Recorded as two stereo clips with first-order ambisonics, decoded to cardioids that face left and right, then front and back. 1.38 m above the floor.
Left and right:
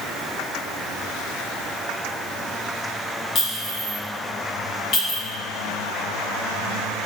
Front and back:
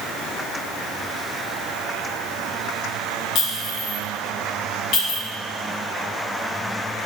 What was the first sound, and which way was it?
A clink, 40° left.